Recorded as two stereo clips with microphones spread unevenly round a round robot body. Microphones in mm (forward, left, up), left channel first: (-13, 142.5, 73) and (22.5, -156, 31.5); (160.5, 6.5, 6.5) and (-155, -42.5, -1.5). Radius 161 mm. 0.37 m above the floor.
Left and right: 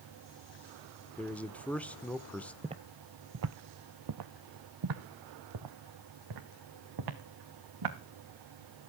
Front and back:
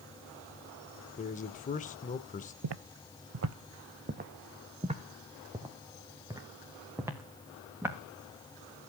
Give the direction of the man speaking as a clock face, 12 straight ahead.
12 o'clock.